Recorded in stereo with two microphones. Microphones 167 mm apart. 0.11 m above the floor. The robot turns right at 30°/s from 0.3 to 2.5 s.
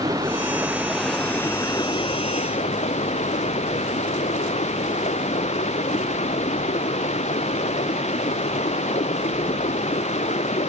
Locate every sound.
0.0 s running water: 20° right; by 10.7 s 45° left